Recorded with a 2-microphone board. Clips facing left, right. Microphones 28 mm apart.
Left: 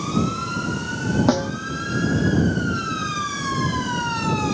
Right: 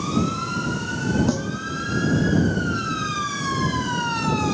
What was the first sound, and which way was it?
A snare drum, 35° left (ahead or behind).